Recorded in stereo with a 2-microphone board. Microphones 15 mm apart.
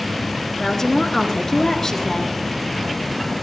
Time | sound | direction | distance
0.6 | a woman speaking | 30° left (ahead or behind) | 3.5 m